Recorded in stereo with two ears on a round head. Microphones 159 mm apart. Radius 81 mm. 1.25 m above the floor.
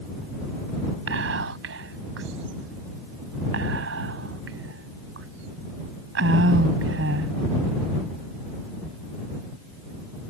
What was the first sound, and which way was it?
Whispering, 85° right.